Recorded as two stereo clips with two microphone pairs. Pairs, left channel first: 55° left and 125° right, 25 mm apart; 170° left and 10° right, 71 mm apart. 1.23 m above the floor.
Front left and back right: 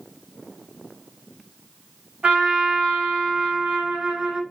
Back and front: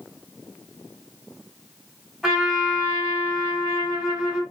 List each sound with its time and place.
2.2 s a trumpet: 95° right, 1.9 m